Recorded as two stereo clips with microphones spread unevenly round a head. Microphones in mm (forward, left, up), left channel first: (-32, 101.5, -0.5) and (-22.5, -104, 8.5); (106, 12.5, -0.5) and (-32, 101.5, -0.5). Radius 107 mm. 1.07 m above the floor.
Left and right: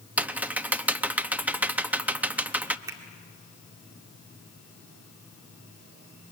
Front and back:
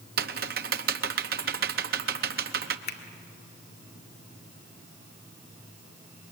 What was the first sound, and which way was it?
Typing on a keyboard, 170° right.